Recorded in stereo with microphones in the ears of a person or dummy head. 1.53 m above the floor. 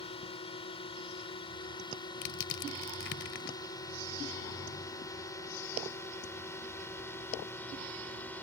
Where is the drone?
30° left (ahead or behind); by 8.4 s 10° left (ahead or behind).